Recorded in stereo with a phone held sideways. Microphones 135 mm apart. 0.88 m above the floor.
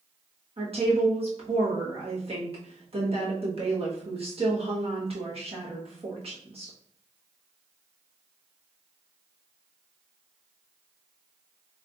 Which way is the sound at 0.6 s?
50° right (ahead or behind).